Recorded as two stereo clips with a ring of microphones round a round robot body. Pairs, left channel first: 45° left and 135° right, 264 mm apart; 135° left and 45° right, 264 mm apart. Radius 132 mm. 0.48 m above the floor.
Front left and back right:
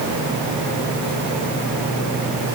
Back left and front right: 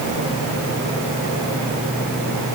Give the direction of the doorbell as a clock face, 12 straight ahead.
I don't hear a doorbell.